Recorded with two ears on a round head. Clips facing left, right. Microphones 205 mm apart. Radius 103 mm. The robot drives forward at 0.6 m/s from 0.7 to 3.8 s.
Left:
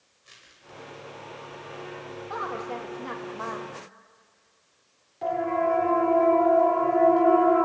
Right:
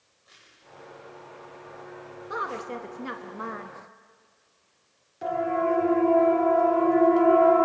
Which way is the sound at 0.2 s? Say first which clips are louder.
Left 3 dB; 40° left (ahead or behind).